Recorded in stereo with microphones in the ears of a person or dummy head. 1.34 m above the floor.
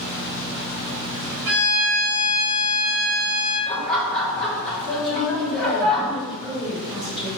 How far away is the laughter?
About 1.2 m.